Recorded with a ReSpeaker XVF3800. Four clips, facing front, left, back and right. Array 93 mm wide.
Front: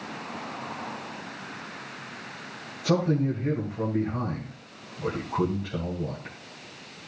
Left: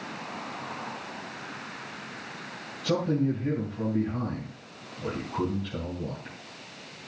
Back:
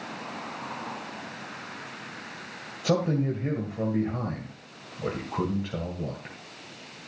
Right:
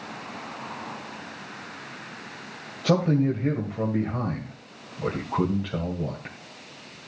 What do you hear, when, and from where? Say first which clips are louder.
2.8 s a man speaking: right 4 dB, front 1 dB; 120° right, 2.5 m